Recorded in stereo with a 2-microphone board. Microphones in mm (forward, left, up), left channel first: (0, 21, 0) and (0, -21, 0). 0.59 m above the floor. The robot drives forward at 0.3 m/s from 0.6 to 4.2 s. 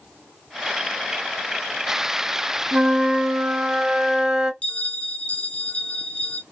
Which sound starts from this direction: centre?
A flute, at 2.7 s.